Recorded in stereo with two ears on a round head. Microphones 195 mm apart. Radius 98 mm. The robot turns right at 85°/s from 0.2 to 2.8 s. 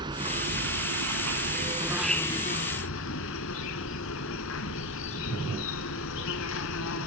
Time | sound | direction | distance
0.0 | an insect | 160° right | 1.3 m